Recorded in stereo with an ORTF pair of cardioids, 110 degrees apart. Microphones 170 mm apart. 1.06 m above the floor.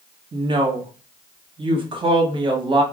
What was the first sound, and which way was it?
A woman speaking, 30° right.